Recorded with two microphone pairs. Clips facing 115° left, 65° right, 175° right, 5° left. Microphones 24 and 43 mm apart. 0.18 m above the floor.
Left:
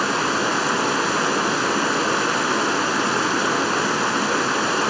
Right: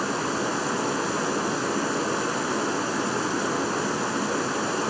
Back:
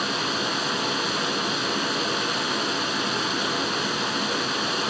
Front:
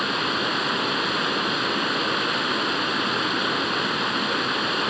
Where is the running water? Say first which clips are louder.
Left 6 dB, front 2 dB; 75° left, 0.9 m.